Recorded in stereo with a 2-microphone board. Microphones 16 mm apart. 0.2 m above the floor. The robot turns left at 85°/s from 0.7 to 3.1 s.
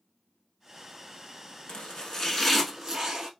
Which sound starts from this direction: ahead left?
Chopping, at 1.7 s.